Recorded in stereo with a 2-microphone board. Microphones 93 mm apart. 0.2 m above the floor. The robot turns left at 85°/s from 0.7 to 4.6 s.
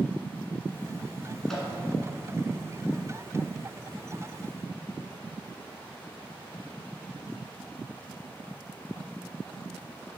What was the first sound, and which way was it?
A microwave, 5° left (ahead or behind).